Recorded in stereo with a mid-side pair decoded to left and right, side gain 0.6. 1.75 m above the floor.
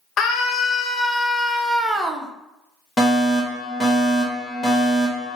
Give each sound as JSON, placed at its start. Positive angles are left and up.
{"t": 0.2, "sound": "a scream", "azimuth_deg": 50, "distance_m": 1.0}
{"t": 3.0, "sound": "a fire alarm", "azimuth_deg": 25, "distance_m": 1.4}